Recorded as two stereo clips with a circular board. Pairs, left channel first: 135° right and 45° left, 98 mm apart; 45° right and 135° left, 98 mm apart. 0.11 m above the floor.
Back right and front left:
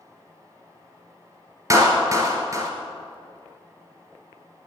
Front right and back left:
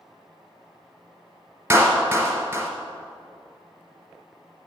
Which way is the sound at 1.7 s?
80° left.